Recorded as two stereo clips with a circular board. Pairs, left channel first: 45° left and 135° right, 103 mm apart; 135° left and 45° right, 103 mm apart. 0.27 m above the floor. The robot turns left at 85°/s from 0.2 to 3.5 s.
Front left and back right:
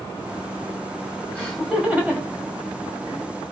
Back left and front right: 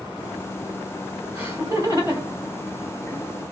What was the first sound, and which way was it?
Laughter, 20° right.